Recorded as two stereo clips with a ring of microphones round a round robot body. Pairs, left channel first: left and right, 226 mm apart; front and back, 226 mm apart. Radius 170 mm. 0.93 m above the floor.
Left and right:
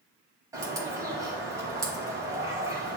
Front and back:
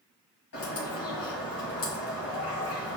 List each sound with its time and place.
0.5 s a bird: 15° right, 1.5 m